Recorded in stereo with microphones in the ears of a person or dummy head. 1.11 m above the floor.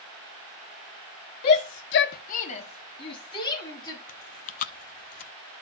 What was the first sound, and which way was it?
A shout, 45° left (ahead or behind).